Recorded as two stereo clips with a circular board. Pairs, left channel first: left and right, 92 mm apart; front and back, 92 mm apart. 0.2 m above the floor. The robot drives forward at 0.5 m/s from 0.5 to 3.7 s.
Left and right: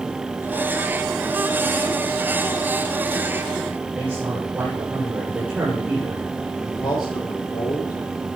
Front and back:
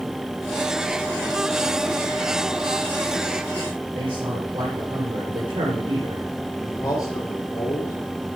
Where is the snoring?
No snoring in this recording.